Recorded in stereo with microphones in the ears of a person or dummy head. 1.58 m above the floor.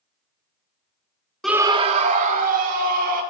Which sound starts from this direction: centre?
A scream, at 1.4 s.